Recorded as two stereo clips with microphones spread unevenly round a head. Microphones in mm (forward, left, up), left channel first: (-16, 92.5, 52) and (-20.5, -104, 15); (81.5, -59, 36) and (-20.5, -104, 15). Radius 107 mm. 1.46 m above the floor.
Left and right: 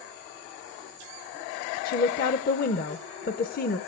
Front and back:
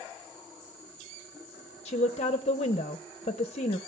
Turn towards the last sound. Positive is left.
turn(degrees=50)